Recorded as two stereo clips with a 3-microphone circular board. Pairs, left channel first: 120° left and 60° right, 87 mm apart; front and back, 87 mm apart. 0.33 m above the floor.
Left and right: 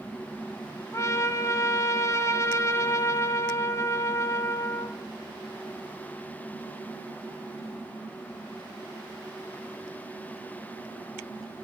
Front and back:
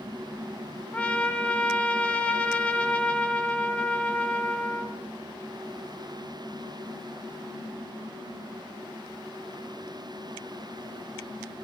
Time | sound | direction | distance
0.9 | a trumpet | 70° left | 1.4 m